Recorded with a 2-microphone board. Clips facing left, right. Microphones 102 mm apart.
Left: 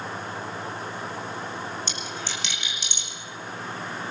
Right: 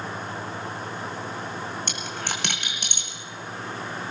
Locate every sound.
1.9 s a dropped coin: 55° right (ahead or behind), 2.5 m